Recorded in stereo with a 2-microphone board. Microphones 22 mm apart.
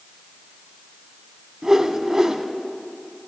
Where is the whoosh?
30° right (ahead or behind), 1.0 m.